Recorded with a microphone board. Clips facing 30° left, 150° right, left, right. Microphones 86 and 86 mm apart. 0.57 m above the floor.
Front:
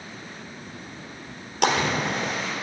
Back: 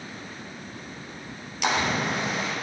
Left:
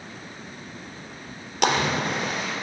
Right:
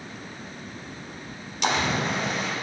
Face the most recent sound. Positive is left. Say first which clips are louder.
# front 2 dB, left 2 dB
turn(degrees=65)